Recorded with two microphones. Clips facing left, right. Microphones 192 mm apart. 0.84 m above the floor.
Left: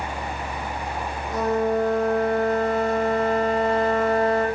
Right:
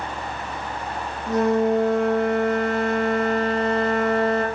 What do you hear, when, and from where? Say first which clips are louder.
1.3 s a flute: right 4 dB; 80° right, 4 m